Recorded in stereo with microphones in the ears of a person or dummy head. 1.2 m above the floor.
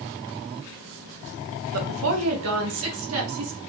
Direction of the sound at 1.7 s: 85° right.